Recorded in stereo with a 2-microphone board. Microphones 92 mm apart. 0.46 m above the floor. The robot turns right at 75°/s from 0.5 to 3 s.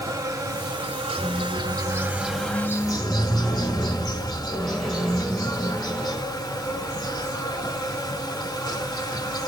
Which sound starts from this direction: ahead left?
A squeak, at 1.2 s.